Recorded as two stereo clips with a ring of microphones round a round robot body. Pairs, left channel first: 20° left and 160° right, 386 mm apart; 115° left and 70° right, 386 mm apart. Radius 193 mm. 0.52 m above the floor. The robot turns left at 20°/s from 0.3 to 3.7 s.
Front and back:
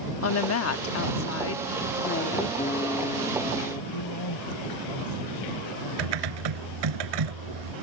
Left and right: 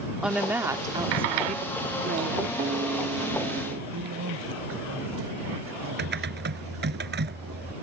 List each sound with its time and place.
0.2 s a woman speaking: 20° left; by 2.5 s 25° right
2.6 s a guitar: 25° right; by 3.8 s 50° right
3.9 s a man speaking: 10° right
6.0 s typing on a keyboard: 130° right